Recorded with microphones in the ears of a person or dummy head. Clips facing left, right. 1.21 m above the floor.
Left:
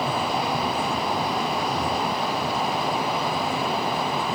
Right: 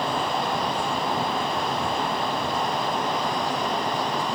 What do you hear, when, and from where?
Only background noise.